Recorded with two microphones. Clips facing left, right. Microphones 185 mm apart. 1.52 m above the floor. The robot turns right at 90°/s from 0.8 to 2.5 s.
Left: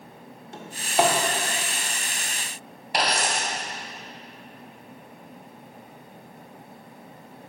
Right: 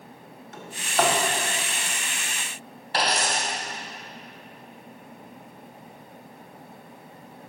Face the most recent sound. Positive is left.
turn(degrees=15)  # may be behind; listen again after turning